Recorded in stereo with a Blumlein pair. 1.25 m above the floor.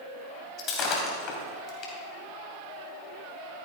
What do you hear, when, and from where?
0.6 s breaking glass: 30° left, 3 m